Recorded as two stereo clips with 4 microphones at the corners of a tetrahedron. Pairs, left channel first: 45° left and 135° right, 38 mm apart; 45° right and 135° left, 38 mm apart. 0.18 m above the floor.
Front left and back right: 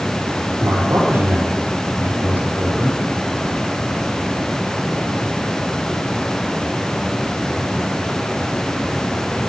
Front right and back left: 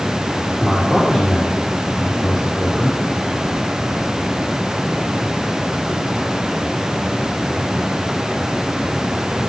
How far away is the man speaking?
About 4 m.